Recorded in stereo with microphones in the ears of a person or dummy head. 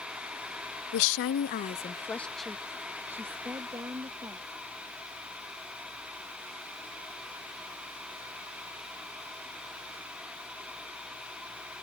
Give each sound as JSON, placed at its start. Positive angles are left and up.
{"t": 0.9, "sound": "a woman speaking", "side_deg": 65}